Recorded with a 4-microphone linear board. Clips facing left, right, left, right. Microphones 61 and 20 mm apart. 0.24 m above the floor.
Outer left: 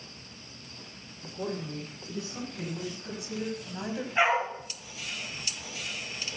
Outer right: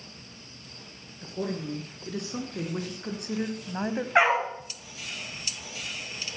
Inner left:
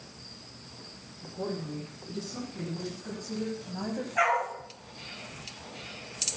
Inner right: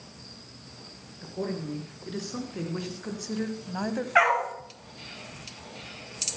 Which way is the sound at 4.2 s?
70° right (ahead or behind).